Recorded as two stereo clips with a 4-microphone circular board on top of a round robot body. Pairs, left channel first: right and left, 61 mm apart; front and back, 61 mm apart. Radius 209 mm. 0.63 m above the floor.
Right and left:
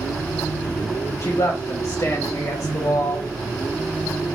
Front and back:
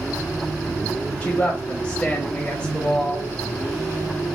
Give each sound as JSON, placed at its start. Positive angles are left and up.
{"t": 1.2, "sound": "a woman speaking", "azimuth_deg": -75, "distance_m": 2.5}